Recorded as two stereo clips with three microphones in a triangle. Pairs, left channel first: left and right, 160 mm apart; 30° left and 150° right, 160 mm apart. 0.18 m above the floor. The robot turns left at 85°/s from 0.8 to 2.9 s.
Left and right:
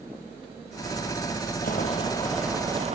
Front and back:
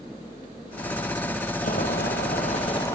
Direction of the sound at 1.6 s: 65° left.